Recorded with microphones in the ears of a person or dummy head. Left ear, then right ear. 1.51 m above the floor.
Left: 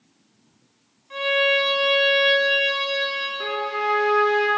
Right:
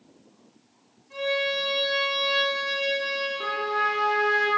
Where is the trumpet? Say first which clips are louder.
Right 1 dB; 5° right (ahead or behind), 2 m.